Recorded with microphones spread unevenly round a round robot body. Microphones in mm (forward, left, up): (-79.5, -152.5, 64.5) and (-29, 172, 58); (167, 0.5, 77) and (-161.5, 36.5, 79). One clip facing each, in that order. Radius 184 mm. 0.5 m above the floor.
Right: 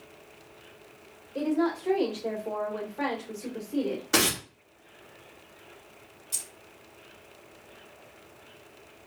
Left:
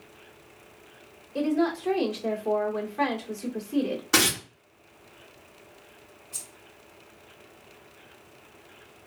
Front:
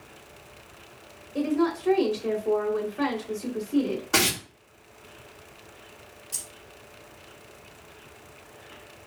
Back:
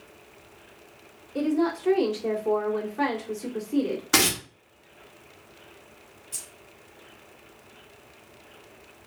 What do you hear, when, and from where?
1.4 s a woman speaking: 90° left, 2.0 m
4.1 s tearing paper: 145° left, 1.8 m
6.3 s keys jangling: 85° right, 1.5 m